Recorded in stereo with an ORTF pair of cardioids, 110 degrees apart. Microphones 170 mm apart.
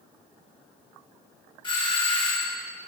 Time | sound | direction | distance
1.6 | a doorbell | 30° left | 3.5 m